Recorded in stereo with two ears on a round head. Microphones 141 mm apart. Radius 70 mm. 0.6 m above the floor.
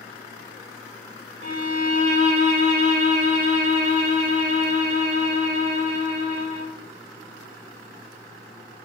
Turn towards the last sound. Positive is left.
turn(degrees=-55)  # may be behind; listen again after turning